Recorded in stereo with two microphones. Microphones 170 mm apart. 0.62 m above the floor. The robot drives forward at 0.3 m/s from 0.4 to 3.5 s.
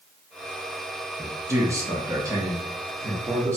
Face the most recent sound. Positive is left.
turn(degrees=-15)  # may be behind; listen again after turning